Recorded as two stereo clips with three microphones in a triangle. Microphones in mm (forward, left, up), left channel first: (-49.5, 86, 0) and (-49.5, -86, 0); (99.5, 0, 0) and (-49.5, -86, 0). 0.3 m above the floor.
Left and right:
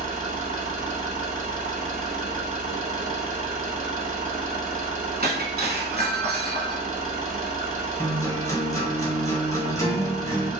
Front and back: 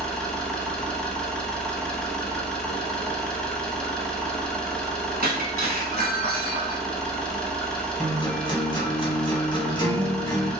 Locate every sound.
0.0 s an engine running: 55° right, 0.8 m
5.2 s breaking glass: 120° right, 0.7 m
8.0 s a guitar: 40° left, 0.7 m